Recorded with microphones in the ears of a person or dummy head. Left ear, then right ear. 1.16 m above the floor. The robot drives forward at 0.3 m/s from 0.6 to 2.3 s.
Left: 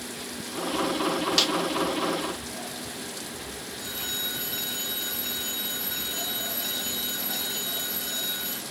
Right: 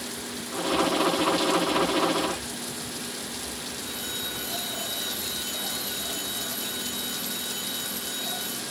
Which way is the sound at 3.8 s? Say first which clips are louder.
Left 3 dB; 20° left (ahead or behind).